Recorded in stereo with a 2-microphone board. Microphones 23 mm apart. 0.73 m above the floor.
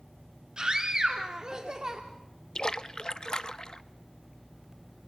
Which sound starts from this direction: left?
A splash, at 2.5 s.